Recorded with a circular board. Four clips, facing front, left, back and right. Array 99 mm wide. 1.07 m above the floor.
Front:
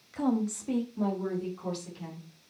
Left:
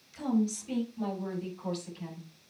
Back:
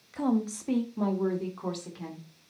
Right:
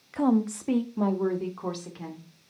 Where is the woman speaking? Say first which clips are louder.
Right 6 dB, back 1 dB; 90° right, 1.1 m; by 2.3 s 115° right, 3 m.